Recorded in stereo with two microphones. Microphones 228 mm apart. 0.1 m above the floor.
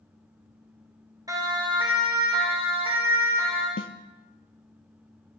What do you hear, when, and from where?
1.3 s a siren: 15° right (ahead or behind), 2.5 m; by 3.7 s 25° right (ahead or behind), 5.5 m
3.8 s a snare drum: 65° left (ahead or behind), 0.9 m